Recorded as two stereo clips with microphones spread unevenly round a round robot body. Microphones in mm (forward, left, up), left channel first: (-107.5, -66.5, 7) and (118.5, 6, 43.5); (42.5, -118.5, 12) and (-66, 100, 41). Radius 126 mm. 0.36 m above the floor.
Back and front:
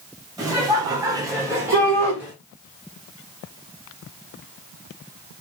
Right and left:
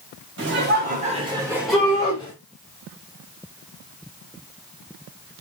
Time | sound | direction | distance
0.4 | laughter | 100° left | 1.5 m
1.7 | a shout | 20° left | 1.8 m